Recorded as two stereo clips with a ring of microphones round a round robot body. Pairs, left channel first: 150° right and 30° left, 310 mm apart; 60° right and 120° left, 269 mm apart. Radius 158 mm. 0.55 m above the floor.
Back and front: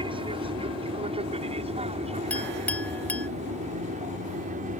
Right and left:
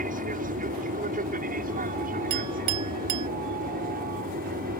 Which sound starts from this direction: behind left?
A clink, at 2.3 s.